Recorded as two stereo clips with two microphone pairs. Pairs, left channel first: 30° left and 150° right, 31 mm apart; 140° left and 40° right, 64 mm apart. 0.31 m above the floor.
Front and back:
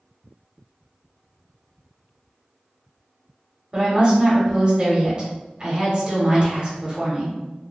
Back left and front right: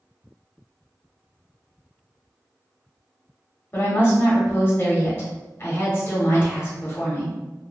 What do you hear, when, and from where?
3.7 s a woman speaking: 175° left, 1.2 m